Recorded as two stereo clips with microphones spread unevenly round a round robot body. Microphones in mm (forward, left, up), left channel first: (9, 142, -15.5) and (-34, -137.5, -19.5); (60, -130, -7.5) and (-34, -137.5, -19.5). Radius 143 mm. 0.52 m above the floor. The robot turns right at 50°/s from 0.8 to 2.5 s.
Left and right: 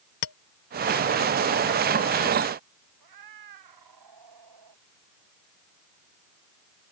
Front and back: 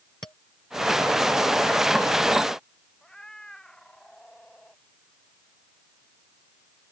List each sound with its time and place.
0.2 s a clink: 75° left
3.0 s a cat meowing: 80° right